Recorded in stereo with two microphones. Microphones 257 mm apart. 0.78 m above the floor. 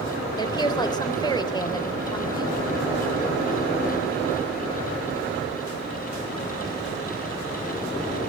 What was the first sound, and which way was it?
A woman speaking, 15° left (ahead or behind).